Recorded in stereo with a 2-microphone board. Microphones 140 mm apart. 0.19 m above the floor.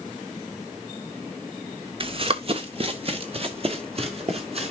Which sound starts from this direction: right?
Running footsteps, at 2.0 s.